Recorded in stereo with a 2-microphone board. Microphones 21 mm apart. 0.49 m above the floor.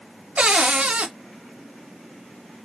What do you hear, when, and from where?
0.4 s a cupboard door: 65° right (ahead or behind), 0.6 m